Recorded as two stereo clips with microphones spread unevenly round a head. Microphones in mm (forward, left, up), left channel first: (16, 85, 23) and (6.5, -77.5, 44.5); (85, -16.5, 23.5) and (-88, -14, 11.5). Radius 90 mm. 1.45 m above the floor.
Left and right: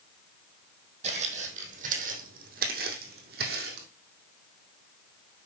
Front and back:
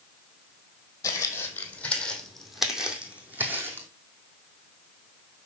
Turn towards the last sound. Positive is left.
turn(degrees=-105)